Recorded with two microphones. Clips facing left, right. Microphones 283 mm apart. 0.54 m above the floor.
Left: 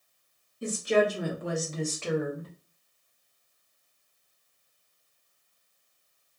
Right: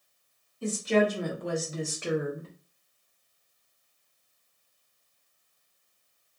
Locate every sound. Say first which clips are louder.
0.6 s a woman speaking: even; 20° left (ahead or behind), 1.4 m; by 2.5 s 30° right (ahead or behind), 1.0 m